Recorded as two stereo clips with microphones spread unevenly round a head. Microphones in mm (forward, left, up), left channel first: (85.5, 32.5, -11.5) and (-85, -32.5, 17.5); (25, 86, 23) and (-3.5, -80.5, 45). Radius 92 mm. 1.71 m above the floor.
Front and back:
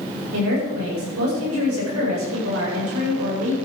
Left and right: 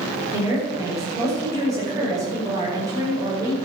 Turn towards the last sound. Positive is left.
turn(degrees=-170)